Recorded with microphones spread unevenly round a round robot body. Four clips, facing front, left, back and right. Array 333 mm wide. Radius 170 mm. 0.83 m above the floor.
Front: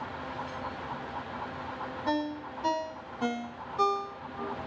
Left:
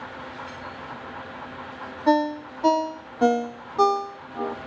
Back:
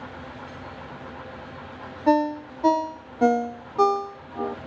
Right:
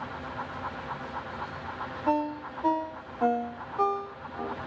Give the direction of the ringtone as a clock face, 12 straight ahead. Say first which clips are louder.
Left 7 dB, back 11 dB; 8 o'clock.